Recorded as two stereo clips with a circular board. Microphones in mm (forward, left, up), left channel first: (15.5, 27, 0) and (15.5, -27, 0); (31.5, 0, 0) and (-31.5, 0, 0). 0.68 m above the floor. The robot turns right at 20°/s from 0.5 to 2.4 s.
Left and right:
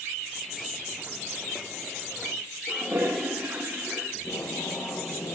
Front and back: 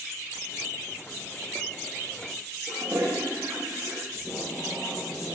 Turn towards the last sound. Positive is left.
turn(degrees=80)